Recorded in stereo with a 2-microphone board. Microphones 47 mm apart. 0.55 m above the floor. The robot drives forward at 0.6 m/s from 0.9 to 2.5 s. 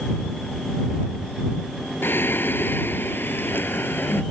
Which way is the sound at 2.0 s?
45° left (ahead or behind).